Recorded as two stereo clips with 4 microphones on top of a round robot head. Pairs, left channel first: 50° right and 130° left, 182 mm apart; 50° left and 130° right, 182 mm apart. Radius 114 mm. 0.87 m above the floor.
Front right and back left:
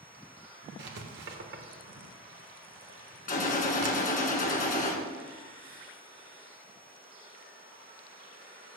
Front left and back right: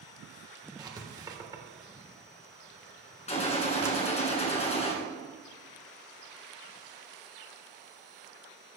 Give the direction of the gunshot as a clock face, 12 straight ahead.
12 o'clock.